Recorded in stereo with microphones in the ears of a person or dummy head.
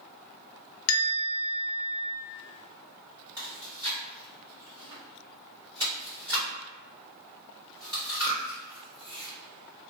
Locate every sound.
0.9 s a bell: 75° left (ahead or behind), 0.8 m
3.4 s chewing: 25° right (ahead or behind), 1.7 m